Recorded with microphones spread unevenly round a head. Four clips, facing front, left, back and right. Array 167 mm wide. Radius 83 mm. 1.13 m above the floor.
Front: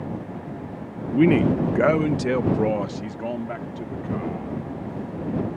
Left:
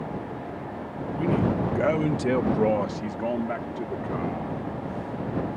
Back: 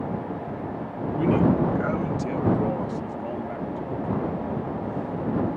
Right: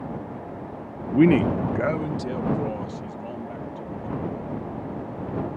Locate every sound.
1.1 s a man speaking: 60° right; by 4.6 s 55° left